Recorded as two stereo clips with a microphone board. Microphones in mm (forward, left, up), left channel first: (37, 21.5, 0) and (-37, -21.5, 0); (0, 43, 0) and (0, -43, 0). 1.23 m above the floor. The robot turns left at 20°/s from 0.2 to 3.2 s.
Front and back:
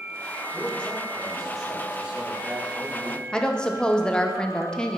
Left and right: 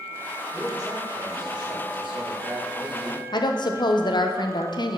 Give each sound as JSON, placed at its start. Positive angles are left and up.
{"t": 0.5, "sound": "a man speaking", "azimuth_deg": -40, "distance_m": 1.7}
{"t": 3.3, "sound": "a woman speaking", "azimuth_deg": 110, "distance_m": 0.6}